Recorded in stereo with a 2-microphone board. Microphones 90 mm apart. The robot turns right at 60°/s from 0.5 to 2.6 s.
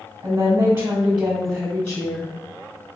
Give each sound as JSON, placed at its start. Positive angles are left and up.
{"t": 0.2, "sound": "a woman speaking", "azimuth_deg": -75, "distance_m": 1.2}